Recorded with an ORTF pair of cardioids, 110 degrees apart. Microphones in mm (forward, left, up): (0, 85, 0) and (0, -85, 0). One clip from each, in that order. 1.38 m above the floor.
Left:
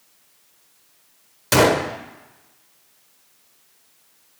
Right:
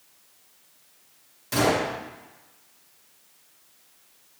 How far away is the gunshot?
About 1.2 m.